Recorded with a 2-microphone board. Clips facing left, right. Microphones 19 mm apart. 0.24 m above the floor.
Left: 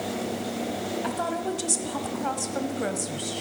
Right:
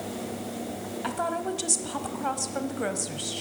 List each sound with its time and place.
1.0 s a woman speaking: 10° right (ahead or behind), 1.0 m